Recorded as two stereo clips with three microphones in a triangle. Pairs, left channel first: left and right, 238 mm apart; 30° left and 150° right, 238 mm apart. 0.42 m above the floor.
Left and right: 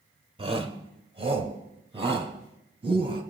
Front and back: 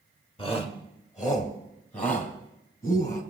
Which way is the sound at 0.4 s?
30° right.